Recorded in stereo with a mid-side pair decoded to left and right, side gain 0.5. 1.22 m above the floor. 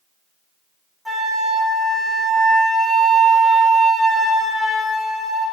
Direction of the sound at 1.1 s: 10° left.